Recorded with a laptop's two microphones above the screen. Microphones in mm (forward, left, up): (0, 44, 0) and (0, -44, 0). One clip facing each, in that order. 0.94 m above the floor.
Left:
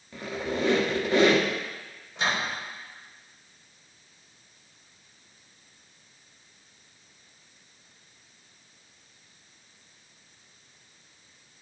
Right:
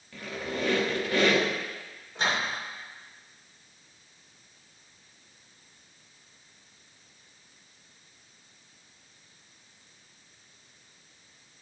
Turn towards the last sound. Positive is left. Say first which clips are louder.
# even
turn(degrees=-45)  # may be behind; listen again after turning